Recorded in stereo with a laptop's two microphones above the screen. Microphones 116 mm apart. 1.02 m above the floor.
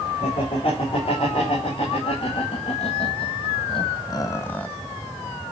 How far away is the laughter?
About 4 m.